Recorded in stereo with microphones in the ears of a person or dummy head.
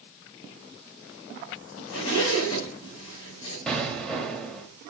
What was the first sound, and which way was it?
A zipper, 80° left.